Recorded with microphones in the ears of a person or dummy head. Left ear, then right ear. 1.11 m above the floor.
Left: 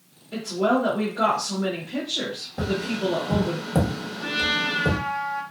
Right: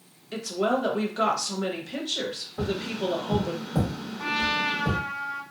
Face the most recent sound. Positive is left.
turn(degrees=-55)  # may be behind; listen again after turning